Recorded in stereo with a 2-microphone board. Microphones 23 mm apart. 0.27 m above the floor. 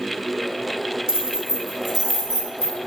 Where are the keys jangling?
30° right (ahead or behind), 0.8 m; by 2.8 s 30° left (ahead or behind), 0.9 m.